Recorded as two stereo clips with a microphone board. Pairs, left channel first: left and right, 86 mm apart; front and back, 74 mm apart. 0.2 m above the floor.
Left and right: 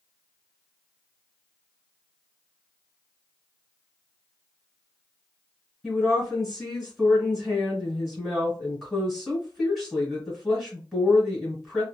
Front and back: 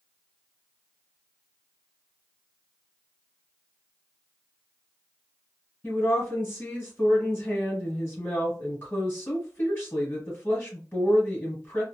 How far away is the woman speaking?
About 1.6 m.